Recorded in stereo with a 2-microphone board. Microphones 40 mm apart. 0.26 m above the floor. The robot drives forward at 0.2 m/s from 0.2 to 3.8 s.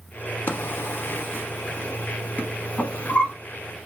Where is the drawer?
65° left (ahead or behind), 0.5 m; by 3.3 s 35° left (ahead or behind), 0.8 m.